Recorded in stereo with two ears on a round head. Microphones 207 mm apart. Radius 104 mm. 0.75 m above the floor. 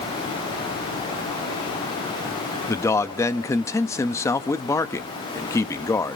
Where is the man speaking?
10° left (ahead or behind), 0.7 m.